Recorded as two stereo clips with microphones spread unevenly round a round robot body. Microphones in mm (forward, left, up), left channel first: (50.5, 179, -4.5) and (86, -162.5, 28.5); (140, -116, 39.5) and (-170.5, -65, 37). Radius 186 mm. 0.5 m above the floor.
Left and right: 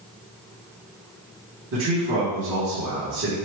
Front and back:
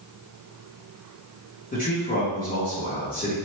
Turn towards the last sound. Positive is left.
turn(degrees=-55)